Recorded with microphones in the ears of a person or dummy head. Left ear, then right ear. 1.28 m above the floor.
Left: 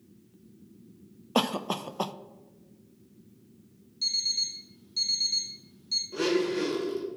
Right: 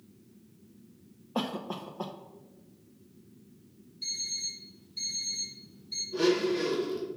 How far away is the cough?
About 0.5 m.